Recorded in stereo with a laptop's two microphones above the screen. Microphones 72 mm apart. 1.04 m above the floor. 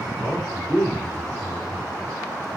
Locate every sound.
0.2 s a man speaking: 25° left (ahead or behind), 4 m